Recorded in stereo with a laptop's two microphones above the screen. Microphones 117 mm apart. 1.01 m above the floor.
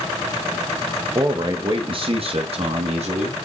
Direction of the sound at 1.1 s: 35° right (ahead or behind).